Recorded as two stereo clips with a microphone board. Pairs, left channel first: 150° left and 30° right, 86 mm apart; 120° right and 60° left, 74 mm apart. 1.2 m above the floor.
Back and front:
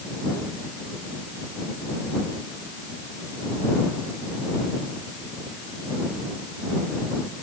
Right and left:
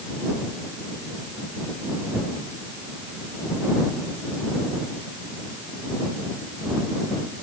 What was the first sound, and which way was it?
Only background noise.